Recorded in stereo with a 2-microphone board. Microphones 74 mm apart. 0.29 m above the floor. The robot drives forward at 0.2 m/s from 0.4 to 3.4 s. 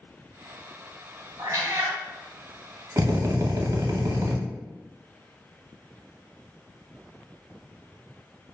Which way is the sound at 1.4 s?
55° right (ahead or behind).